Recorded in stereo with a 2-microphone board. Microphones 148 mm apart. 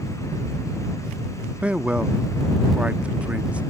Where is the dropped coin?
I don't hear a dropped coin.